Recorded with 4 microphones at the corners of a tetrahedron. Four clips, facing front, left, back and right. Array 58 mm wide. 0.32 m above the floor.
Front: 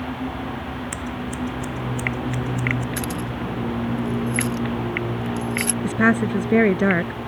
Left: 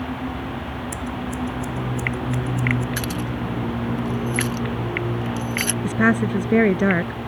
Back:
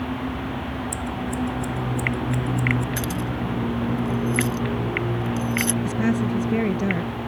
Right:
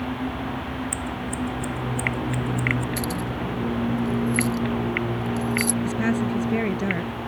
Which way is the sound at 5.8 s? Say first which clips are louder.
Left 4 dB, front 4 dB; 40° left.